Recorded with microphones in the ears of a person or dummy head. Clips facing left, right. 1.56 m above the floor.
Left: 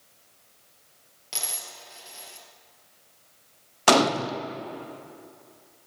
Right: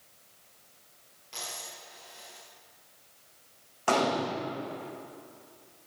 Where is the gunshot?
80° left, 1.1 m.